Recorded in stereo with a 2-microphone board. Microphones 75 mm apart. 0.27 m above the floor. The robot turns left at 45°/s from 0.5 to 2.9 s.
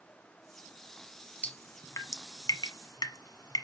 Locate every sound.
1.4 s dripping: 25° left (ahead or behind), 1.1 m; by 3.6 s 65° left (ahead or behind), 1.1 m